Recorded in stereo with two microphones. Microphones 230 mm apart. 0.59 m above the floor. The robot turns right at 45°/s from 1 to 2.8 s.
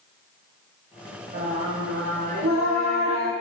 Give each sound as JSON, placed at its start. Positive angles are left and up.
{"t": 1.3, "sound": "singing", "azimuth_deg": -135, "distance_m": 1.2}